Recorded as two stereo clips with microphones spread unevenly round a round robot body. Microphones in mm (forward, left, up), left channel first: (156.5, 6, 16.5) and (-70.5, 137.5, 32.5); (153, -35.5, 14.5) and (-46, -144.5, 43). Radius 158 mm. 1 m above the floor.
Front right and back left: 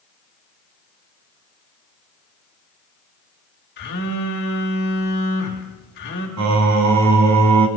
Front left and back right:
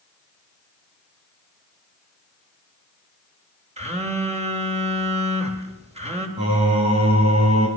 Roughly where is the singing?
Behind left.